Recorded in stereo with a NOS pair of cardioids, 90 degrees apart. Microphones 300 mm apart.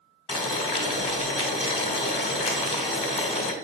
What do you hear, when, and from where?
0.3 s boiling: 20° left, 1.1 m